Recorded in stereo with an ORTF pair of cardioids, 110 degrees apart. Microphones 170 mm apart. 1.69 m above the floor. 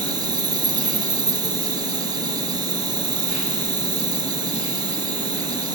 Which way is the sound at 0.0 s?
25° right.